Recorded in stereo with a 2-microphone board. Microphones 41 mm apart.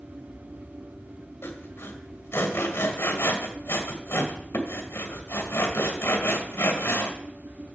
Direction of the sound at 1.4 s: 85° left.